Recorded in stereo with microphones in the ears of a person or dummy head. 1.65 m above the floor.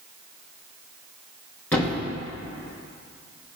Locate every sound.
1.7 s a thud: 5° left (ahead or behind), 1.1 m